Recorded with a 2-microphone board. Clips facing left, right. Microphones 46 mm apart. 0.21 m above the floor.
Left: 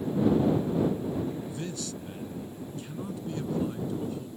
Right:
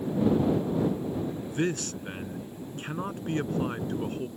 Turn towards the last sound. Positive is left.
turn(degrees=-55)  # may be behind; listen again after turning